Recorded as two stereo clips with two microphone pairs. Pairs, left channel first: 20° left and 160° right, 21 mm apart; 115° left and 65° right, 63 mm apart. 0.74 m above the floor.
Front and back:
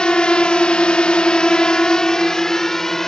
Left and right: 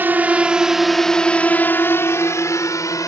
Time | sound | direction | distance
0.0 | a drone | 15° right | ?